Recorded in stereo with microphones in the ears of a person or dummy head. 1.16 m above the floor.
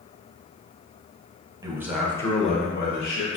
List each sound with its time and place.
1.6 s a man speaking: 15° right (ahead or behind), 0.7 m; by 3.4 s 60° left (ahead or behind), 0.9 m